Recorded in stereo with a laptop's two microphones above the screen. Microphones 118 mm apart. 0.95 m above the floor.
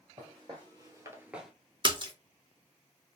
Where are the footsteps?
40° right (ahead or behind), 2.0 m; by 1.5 s centre (ahead or behind), 0.9 m.